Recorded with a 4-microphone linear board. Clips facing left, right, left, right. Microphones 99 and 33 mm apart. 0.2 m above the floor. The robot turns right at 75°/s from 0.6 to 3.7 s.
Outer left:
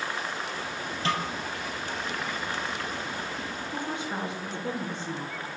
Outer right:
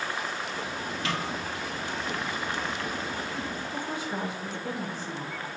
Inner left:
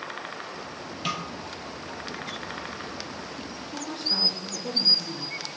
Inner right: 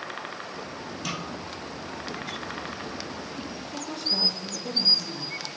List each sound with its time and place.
1.1 s a snare drum: 30° left (ahead or behind), 1.9 m; by 1.2 s 15° left (ahead or behind), 1.9 m
3.6 s a woman speaking: 20° left (ahead or behind), 2.5 m; by 5.5 s 25° left (ahead or behind), 2.5 m